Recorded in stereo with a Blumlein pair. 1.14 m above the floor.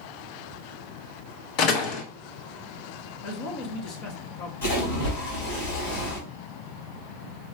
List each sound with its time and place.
1.6 s a door slam: 40° left, 1.3 m
3.2 s a man speaking: 40° left, 2 m
4.6 s a splash: 65° left, 5 m